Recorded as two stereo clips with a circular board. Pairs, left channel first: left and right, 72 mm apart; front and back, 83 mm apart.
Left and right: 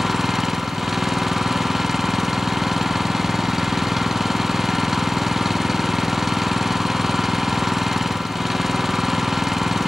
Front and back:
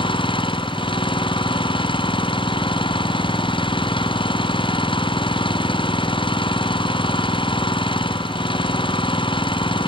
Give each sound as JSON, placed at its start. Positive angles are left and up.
{"t": 0.0, "sound": "an engine running", "azimuth_deg": -5}